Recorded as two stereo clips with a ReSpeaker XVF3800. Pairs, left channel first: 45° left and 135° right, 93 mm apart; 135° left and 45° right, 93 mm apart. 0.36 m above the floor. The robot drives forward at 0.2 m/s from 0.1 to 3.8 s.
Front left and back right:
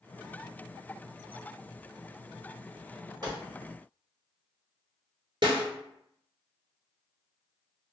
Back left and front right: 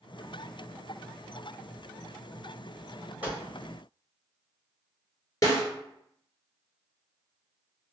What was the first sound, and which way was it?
A gunshot, 115° right.